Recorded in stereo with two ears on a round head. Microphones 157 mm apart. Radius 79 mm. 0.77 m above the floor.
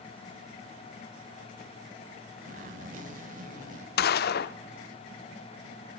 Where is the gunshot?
60° left (ahead or behind), 0.6 m.